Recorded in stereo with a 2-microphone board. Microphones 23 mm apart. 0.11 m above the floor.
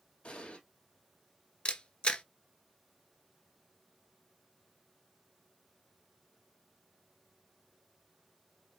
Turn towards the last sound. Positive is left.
turn(degrees=40)  # may be behind; listen again after turning